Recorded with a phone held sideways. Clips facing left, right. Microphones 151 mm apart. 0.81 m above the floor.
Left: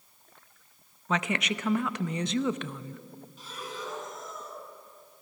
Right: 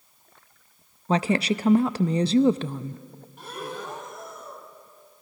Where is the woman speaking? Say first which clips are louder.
Right 7 dB; 35° right (ahead or behind), 0.5 m.